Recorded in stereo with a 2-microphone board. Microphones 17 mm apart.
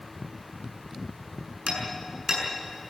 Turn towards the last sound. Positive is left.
turn(degrees=-30)  # may be behind; listen again after turning